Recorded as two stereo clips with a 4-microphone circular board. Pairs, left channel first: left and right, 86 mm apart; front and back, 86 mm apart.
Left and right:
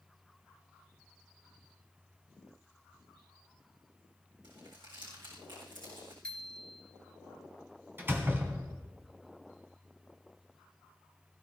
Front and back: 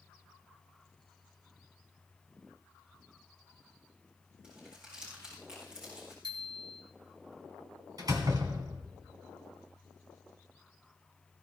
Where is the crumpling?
100° right, 6.5 m.